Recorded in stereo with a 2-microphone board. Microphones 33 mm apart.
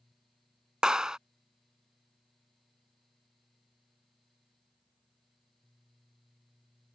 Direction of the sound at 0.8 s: 25° right (ahead or behind).